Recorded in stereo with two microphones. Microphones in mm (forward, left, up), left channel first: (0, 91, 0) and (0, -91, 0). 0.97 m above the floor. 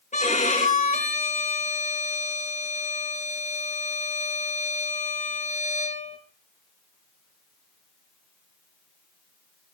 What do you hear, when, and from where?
0.1 s a violin: 45° left (ahead or behind), 4.5 m